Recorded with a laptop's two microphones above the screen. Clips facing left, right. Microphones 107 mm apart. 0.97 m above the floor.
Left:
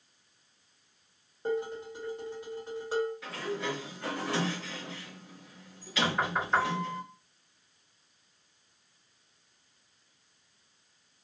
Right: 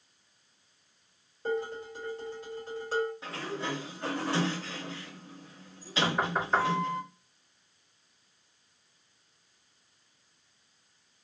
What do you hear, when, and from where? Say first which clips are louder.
1.4 s dishes clattering: even; 20° left (ahead or behind), 1.4 m
3.2 s a sliding door: left 1 dB; 30° right (ahead or behind), 0.9 m
6.0 s knocking: right 1 dB; 10° right (ahead or behind), 1.5 m